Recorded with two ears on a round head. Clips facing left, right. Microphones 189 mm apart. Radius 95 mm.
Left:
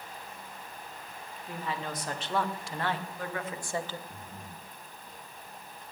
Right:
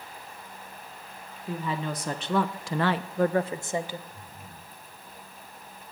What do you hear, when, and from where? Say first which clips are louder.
1.5 s a woman speaking: right 5 dB; 70° right (ahead or behind), 1.4 m; by 4.0 s 10° right (ahead or behind), 1.0 m
4.1 s breathing: left 1 dB; 80° left, 4.5 m